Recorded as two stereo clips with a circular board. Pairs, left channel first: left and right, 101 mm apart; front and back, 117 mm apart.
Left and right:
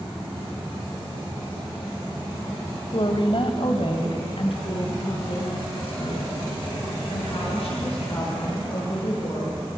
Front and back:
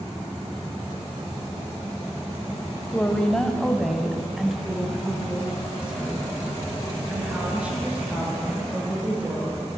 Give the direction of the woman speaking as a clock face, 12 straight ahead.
10 o'clock.